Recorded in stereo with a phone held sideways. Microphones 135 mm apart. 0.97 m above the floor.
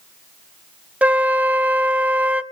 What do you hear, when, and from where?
1.0 s a flute: 10° right (ahead or behind), 0.6 m